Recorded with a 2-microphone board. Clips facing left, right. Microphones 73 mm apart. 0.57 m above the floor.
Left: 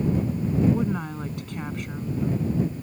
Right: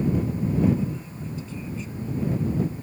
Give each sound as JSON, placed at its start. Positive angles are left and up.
{"t": 0.7, "sound": "a woman speaking", "side_deg": 65}